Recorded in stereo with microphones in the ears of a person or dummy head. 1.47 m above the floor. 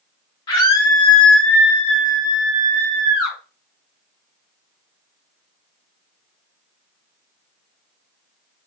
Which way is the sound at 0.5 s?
25° left (ahead or behind).